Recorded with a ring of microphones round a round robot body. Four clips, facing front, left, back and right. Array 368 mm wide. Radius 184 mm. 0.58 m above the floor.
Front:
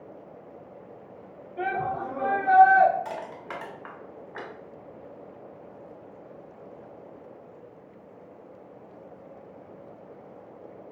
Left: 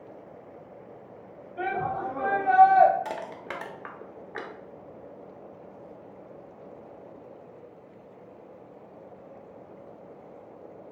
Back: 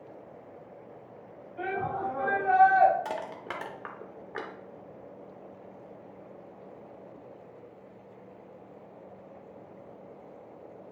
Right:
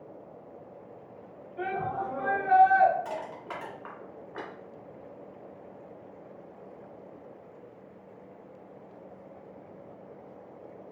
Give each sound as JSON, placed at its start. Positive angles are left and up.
{"t": 1.6, "sound": "a shout", "azimuth_deg": 40, "distance_m": 1.6}
{"t": 3.0, "sound": "crushing", "azimuth_deg": 130, "distance_m": 0.9}